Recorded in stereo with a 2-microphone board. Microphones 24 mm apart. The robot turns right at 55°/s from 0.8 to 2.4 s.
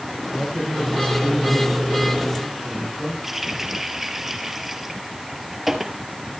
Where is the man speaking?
80° left, 9 m; by 3.1 s 170° left, 9 m.